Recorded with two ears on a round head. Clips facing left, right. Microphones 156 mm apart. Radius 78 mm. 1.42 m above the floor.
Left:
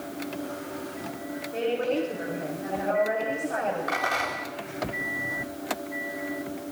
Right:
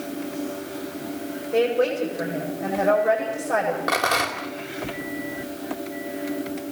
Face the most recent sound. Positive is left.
turn(degrees=-65)  # may be behind; listen again after turning